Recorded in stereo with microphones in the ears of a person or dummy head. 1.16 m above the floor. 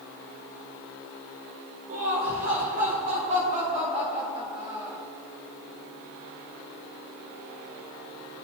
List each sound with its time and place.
1.9 s laughter: 60° right (ahead or behind), 2.5 m; by 5.0 s 25° right (ahead or behind), 4 m